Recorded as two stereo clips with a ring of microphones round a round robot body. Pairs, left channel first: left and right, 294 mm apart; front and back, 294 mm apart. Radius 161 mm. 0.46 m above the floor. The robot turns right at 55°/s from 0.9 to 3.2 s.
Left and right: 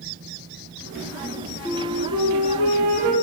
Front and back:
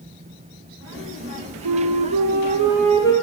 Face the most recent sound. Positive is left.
turn(degrees=-75)